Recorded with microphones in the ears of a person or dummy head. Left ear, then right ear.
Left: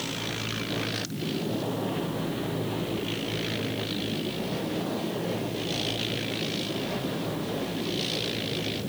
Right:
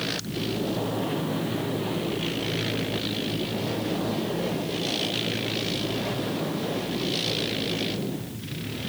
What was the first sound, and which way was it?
Only background noise.